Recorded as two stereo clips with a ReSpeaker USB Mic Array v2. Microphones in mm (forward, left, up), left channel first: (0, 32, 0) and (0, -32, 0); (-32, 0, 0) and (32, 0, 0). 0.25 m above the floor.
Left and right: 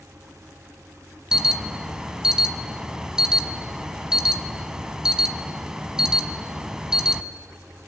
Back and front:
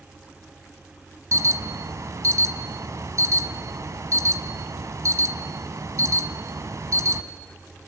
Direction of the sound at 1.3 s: 10° right.